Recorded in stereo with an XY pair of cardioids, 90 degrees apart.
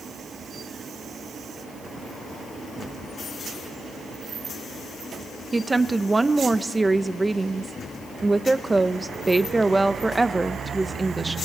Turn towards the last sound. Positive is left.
turn(degrees=-20)